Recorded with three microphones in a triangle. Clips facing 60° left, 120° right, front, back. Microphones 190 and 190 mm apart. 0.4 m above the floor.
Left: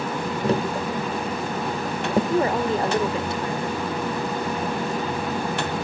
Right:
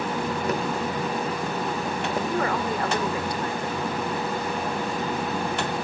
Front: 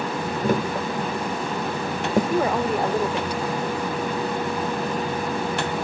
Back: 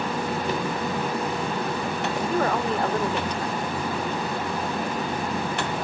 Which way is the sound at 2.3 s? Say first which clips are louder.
Left 4 dB, front 2 dB; 70° left.